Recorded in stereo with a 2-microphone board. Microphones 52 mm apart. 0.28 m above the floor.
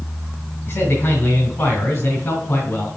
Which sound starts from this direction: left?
A man speaking, at 0.7 s.